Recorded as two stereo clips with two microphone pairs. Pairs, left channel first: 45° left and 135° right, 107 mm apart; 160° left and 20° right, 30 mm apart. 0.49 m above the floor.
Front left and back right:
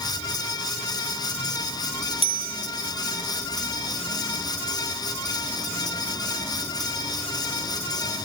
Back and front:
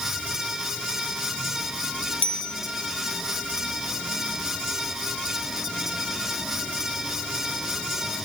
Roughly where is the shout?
No shout in this recording.